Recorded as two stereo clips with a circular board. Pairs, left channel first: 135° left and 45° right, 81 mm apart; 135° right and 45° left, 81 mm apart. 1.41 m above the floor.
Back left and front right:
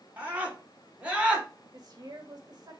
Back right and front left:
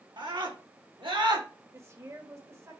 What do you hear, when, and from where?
0.2 s a scream: 25° left, 4 m; by 1.5 s 35° left, 3 m
1.7 s a woman speaking: 10° right, 2 m